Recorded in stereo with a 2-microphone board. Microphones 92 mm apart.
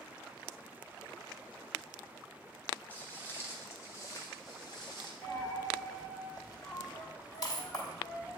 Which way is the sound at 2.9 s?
20° left (ahead or behind).